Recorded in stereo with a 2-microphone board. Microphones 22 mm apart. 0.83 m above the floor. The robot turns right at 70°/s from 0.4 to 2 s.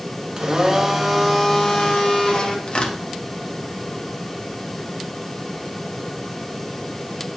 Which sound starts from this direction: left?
Tearing paper, at 2.7 s.